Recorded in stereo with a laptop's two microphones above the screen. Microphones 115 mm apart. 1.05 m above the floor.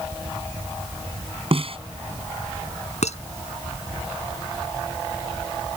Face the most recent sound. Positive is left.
turn(degrees=75)  # may be behind; listen again after turning